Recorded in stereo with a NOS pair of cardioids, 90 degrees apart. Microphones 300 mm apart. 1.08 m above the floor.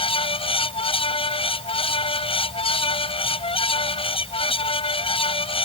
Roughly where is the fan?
Ahead.